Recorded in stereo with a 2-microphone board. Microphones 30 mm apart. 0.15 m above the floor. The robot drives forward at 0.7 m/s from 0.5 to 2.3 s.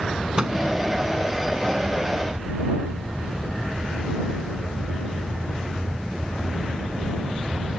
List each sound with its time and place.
0.4 s a microwave: 30° right (ahead or behind)